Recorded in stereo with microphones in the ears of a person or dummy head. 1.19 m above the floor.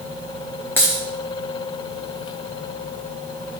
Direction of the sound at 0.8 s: 10° left (ahead or behind).